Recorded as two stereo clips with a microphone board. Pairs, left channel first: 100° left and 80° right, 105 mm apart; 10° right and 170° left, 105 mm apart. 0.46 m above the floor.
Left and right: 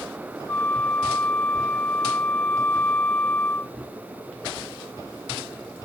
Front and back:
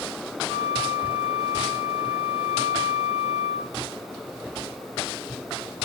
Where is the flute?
125° left, 0.9 m.